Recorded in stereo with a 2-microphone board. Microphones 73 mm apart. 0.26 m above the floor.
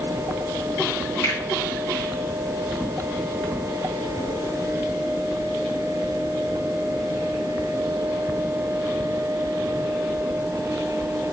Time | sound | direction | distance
1.2 | a finger snap | 40° left (ahead or behind) | 2 m